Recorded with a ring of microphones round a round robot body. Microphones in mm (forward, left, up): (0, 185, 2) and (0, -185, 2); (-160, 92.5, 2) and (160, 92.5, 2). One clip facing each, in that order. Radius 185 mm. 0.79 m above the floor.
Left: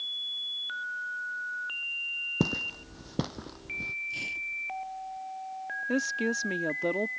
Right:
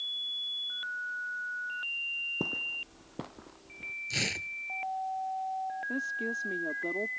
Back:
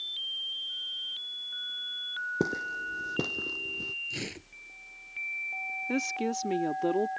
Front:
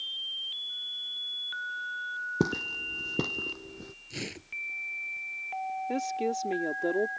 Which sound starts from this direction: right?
Tearing paper, at 4.1 s.